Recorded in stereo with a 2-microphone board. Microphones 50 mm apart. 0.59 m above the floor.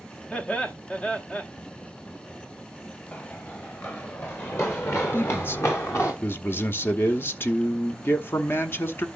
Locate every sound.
0.3 s laughter: 20° left (ahead or behind), 1.2 m
3.1 s running footsteps: 40° left (ahead or behind), 4 m; by 6.1 s 65° left (ahead or behind), 3 m
5.1 s a man speaking: 50° left (ahead or behind), 0.9 m